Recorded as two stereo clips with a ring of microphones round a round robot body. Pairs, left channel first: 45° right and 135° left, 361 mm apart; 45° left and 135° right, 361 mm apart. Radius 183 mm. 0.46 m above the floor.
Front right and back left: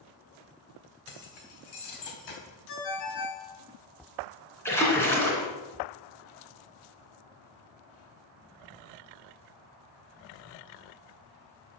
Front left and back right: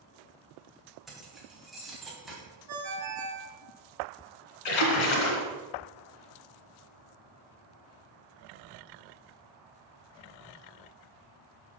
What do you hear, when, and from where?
1.1 s keys jangling: 45° right, 2.5 m
2.7 s a ringtone: 90° right, 3.5 m
4.7 s a splash: 40° left, 2 m